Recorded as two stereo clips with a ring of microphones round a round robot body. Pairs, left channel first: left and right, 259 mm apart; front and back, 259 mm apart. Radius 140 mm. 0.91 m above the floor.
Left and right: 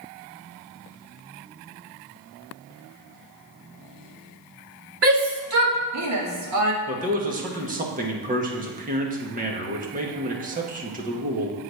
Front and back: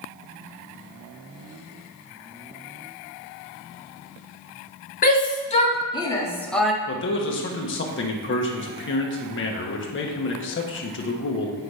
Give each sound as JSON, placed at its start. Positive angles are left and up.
{"t": 5.0, "sound": "a shout", "azimuth_deg": -55, "distance_m": 2.0}
{"t": 6.9, "sound": "a man speaking", "azimuth_deg": -35, "distance_m": 1.4}